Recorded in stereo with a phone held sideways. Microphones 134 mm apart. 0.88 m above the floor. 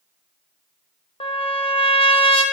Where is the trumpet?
45° left (ahead or behind), 0.7 m.